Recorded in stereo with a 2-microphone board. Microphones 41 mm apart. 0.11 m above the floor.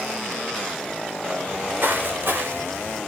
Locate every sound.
1.5 s footsteps: 50° right (ahead or behind), 3.5 m; by 3.0 s 70° right (ahead or behind), 3.5 m